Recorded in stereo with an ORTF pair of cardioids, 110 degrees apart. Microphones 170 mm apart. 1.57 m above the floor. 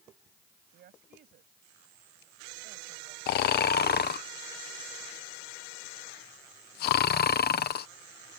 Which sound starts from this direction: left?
Snoring, at 3.3 s.